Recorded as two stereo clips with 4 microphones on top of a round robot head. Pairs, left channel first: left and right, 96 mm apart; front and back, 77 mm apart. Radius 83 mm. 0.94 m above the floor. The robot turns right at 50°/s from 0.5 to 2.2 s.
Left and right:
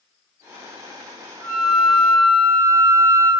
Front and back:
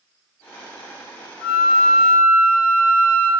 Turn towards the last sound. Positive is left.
turn(degrees=15)